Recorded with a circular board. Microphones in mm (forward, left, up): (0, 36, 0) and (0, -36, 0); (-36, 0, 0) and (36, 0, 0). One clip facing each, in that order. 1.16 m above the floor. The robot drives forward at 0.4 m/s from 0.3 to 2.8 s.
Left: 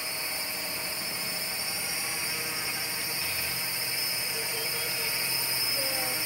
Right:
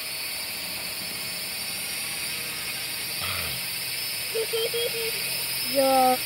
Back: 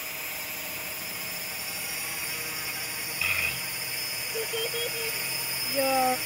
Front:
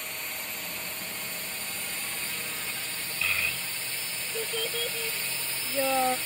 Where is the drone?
100° left; by 6.3 s 120° left.